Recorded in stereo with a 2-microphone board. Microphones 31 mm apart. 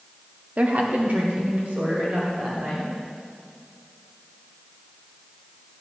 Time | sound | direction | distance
0.6 | a woman speaking | 45° right (ahead or behind) | 0.8 m